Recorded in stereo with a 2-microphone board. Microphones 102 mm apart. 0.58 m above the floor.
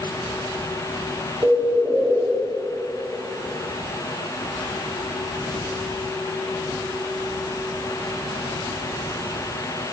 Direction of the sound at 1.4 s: 25° right (ahead or behind).